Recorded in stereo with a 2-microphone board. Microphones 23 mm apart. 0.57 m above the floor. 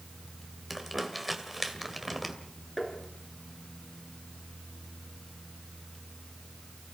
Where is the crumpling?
5° right (ahead or behind), 2.5 m.